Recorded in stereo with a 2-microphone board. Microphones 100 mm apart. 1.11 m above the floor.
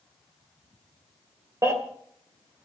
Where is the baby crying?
35° right (ahead or behind), 2.5 m.